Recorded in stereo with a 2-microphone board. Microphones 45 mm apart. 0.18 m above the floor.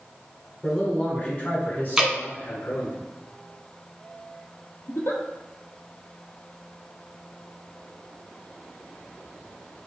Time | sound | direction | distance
0.6 | a man speaking | 15° left (ahead or behind) | 1.2 m
2.0 | dripping | 15° right (ahead or behind) | 1.1 m
4.9 | a giggle | 75° left (ahead or behind) | 1.0 m